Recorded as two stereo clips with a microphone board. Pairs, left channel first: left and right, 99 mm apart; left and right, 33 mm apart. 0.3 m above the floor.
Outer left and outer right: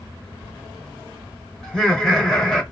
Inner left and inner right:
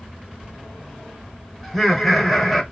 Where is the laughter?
5° left (ahead or behind), 1.0 m.